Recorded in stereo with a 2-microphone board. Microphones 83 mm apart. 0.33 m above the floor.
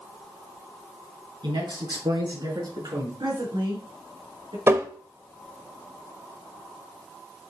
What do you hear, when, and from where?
1.4 s a man speaking: 70° right (ahead or behind), 3.5 m; by 3.1 s 60° right (ahead or behind), 5 m
3.2 s a woman speaking: 75° right (ahead or behind), 3.5 m
4.7 s tapping: 30° right (ahead or behind), 1.2 m